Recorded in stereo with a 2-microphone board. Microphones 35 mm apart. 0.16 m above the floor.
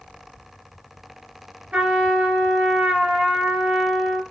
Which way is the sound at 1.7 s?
45° right (ahead or behind).